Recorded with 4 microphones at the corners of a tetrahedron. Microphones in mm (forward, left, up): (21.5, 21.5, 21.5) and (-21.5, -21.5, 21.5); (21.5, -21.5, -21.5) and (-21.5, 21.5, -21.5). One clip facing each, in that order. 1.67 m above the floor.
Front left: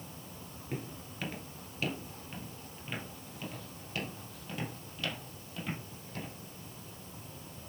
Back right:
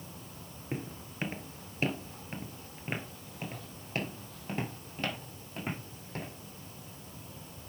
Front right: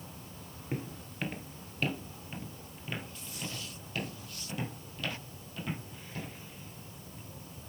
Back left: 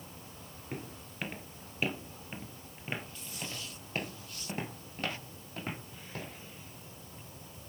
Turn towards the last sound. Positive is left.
turn(degrees=180)